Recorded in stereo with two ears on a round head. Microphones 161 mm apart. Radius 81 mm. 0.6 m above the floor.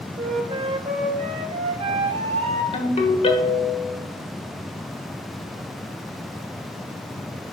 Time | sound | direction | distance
0.2 | a flute | 35° right (ahead or behind) | 1.2 m
2.7 | a ringtone | 35° left (ahead or behind) | 1.5 m